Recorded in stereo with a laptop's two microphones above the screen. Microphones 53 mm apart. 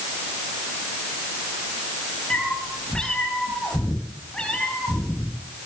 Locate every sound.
2.3 s a cat meowing: 15° left (ahead or behind), 9 m